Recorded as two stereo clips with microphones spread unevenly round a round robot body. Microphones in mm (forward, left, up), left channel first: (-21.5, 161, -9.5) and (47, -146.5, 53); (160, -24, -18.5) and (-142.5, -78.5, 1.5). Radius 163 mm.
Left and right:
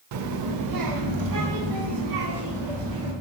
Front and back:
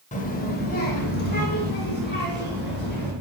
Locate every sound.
0.1 s a child speaking: 45° right, 0.5 m